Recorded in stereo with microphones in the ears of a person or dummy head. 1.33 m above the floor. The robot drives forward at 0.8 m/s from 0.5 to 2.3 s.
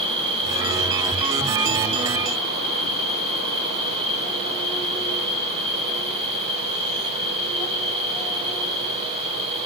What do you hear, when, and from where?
0.0 s an insect: 10° left (ahead or behind), 1.1 m; by 9.7 s 5° left (ahead or behind), 2.5 m